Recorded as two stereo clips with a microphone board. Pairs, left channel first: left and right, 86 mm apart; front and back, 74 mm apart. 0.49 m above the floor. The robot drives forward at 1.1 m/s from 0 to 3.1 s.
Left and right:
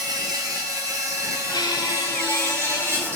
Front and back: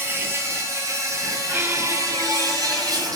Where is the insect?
125° right, 4 m; by 3.2 s 150° right, 6.5 m.